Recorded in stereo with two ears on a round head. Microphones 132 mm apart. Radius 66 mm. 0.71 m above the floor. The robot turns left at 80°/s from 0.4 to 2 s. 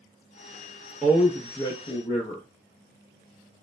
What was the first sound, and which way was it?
A man speaking, 170° right.